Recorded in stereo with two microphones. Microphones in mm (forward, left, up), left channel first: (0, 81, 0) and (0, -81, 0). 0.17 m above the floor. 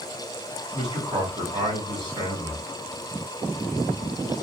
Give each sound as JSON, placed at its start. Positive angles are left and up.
{"t": 0.7, "sound": "a man speaking", "side_deg": -25, "distance_m": 1.6}